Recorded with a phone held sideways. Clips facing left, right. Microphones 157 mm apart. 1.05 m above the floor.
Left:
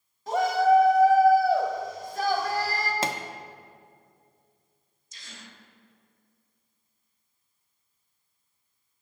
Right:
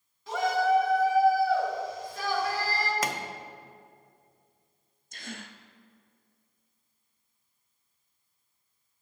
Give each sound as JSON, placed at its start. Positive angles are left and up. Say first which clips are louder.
{"t": 0.3, "sound": "a shout", "louder": "left 4 dB", "side_deg": 45, "distance_m": 1.7}
{"t": 3.0, "sound": "a pop", "louder": "left 2 dB", "side_deg": 30, "distance_m": 0.6}
{"t": 5.1, "sound": "a gasp", "louder": "right 7 dB", "side_deg": -60, "distance_m": 0.5}